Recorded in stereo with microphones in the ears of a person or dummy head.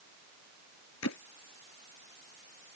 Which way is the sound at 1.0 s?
80° left.